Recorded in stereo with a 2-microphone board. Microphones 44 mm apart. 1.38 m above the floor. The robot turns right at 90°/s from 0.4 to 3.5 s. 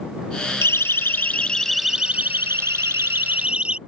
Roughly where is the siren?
Left.